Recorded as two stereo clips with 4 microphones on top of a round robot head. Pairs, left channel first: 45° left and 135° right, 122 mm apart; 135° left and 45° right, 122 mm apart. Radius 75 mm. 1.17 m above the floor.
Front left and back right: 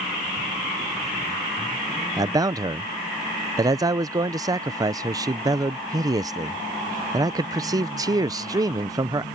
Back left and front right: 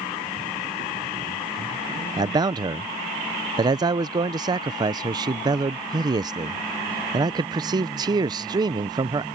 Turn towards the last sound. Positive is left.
turn(degrees=-85)